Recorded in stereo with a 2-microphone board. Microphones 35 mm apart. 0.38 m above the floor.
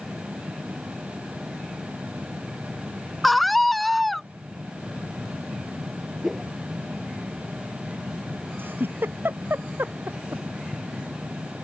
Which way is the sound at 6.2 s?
Centre (ahead or behind).